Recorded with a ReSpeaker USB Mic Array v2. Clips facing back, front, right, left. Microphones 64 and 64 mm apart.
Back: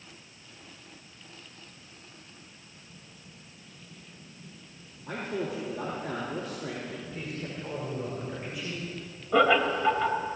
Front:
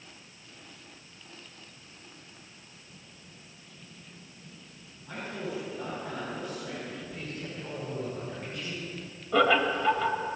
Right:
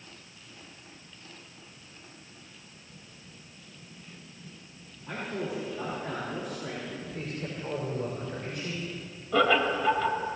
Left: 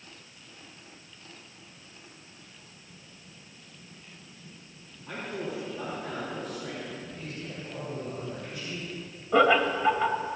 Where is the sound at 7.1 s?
110° right, 5.5 m.